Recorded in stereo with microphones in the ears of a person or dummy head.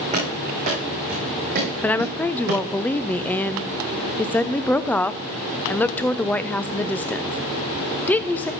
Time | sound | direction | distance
0.1 | running footsteps | 35° right (ahead or behind) | 4 m
1.8 | a woman speaking | 10° left (ahead or behind) | 0.5 m